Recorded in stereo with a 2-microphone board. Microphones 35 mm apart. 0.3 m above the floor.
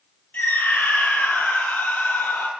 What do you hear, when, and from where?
0.3 s a scream: 55° left (ahead or behind), 7 m; by 2.5 s 65° left (ahead or behind), 8 m